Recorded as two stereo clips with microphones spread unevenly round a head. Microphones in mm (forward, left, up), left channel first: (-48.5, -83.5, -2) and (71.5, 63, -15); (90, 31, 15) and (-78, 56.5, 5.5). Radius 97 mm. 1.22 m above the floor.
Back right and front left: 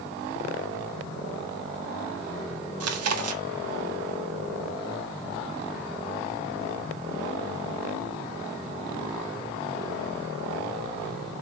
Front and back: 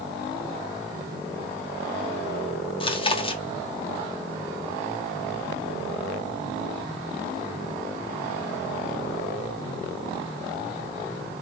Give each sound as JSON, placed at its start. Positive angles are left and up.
{"t": 2.8, "sound": "chewing", "azimuth_deg": 50, "distance_m": 1.6}